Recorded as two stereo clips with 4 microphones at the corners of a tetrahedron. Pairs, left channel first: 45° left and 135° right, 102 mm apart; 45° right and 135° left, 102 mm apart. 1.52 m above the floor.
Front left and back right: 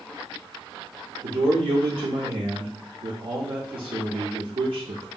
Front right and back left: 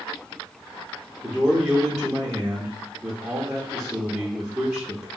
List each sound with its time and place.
1.2 s a man speaking: 145° right, 0.6 m